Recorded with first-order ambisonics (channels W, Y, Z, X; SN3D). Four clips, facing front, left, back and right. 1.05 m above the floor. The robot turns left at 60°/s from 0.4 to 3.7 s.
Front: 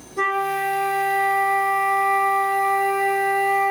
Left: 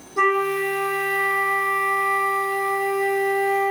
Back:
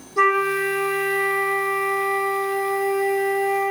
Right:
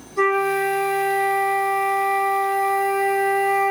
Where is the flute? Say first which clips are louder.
Right 1 dB, back 3 dB; 165° left, 1.2 m; by 3.7 s 35° right, 1.2 m.